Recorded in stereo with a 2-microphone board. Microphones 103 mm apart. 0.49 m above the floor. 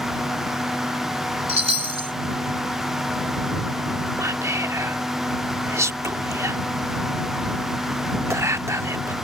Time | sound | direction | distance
1.5 | a chime | 75° right (ahead or behind) | ?
4.2 | whispering | 25° right (ahead or behind) | ?